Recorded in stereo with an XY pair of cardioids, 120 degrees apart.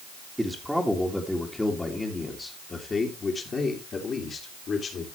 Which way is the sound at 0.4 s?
5° right.